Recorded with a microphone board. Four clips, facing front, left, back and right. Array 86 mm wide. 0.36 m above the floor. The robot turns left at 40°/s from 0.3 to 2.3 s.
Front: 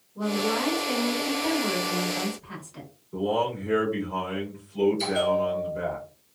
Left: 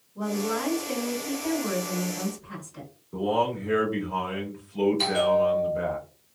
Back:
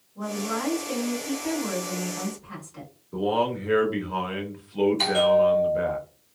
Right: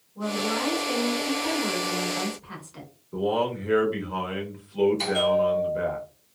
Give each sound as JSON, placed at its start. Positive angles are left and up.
{"t": 0.1, "sound": "a woman speaking", "azimuth_deg": 15, "distance_m": 1.2}
{"t": 3.1, "sound": "a man speaking", "azimuth_deg": -155, "distance_m": 0.9}
{"t": 5.0, "sound": "a bell", "azimuth_deg": 175, "distance_m": 0.9}